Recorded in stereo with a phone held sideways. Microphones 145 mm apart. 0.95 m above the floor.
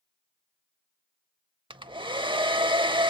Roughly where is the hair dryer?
Right.